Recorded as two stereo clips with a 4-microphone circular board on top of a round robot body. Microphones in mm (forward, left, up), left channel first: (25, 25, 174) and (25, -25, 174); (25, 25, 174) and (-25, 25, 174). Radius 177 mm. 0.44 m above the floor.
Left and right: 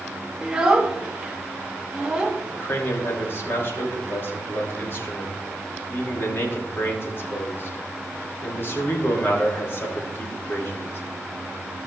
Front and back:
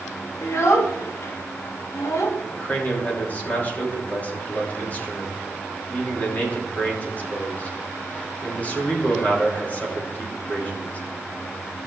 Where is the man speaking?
55° left, 3 m.